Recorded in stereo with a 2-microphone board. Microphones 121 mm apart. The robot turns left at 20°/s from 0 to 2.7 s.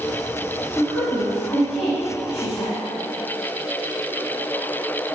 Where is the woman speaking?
Centre (ahead or behind), 1.8 m; by 2.8 s 25° left (ahead or behind), 1.8 m.